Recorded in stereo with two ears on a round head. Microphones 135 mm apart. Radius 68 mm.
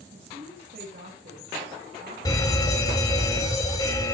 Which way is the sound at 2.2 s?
25° left (ahead or behind).